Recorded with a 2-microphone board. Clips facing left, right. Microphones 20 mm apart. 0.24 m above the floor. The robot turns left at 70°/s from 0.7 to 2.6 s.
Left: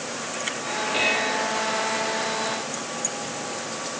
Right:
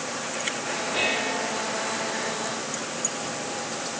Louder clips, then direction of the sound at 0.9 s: Left 3 dB; 25° left.